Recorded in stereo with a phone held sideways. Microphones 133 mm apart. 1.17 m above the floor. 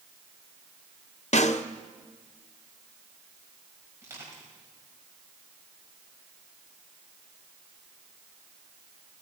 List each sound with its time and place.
1.3 s a snare drum: 55° left (ahead or behind), 0.7 m
4.0 s crushing: 20° right (ahead or behind), 5.5 m